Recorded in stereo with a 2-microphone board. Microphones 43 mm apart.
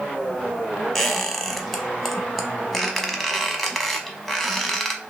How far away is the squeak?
About 0.7 m.